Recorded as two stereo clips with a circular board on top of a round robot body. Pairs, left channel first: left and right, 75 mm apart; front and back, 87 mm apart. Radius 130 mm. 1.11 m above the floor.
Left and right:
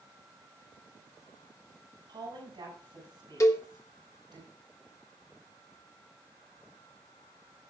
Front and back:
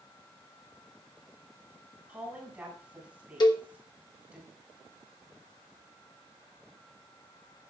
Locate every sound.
2.1 s a woman speaking: 105° right, 6.5 m
3.4 s a cowbell: 40° left, 1.1 m